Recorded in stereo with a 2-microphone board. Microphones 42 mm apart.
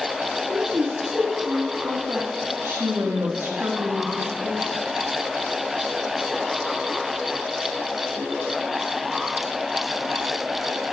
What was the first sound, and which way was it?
A woman speaking, 80° right.